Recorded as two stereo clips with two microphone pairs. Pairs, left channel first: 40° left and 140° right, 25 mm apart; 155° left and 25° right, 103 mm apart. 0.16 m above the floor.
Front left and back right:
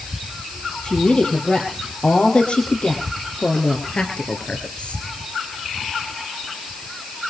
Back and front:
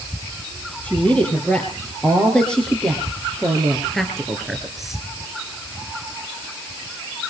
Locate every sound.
0.8 s a woman speaking: 80° left, 5 m; by 5.0 s 60° left, 3 m